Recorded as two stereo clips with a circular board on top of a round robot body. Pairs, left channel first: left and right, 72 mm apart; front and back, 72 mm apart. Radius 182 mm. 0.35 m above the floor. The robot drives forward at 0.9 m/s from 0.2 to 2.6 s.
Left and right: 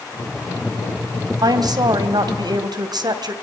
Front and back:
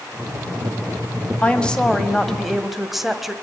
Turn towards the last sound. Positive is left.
turn(degrees=-95)